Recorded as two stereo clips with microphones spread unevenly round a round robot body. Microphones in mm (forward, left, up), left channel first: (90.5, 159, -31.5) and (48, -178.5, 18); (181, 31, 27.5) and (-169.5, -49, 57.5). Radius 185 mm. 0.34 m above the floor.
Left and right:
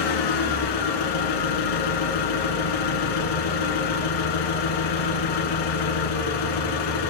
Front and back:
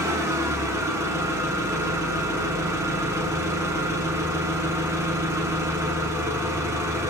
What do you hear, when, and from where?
0.0 s an engine running: 110° left, 1.5 m